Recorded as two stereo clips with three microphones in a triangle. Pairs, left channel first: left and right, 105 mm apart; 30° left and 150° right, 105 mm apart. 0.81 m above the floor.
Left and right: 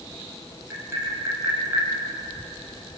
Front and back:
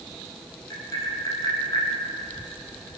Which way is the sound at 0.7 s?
25° right.